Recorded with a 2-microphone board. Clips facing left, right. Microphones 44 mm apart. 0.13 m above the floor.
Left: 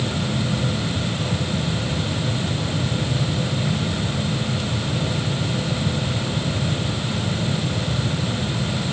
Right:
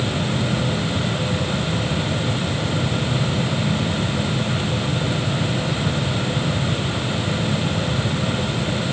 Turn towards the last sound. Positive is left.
No sound to turn to.